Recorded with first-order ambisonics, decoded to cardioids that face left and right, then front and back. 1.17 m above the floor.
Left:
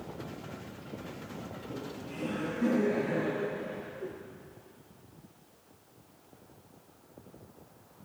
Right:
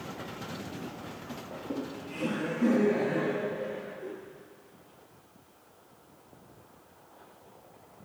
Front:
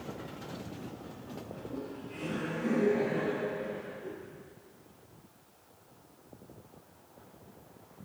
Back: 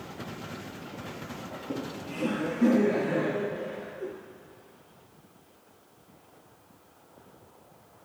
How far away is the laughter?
About 1.5 m.